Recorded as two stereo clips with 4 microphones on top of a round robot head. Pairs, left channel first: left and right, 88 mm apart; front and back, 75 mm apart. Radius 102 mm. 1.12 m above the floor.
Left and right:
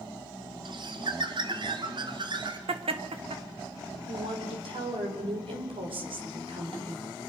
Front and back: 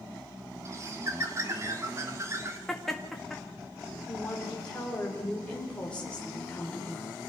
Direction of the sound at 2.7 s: 85° right.